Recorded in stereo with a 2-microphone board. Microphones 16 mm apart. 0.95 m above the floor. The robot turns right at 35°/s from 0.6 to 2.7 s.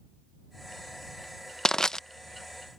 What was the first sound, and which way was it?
Crushing, 35° left (ahead or behind).